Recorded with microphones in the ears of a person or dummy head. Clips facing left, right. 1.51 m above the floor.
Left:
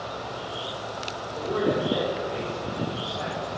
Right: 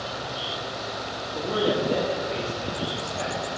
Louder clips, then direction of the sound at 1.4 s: Even; 70° right (ahead or behind).